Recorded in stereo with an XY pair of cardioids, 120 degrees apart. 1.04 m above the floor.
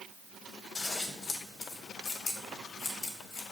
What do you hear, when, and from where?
0.8 s scissors: 40° left, 1.8 m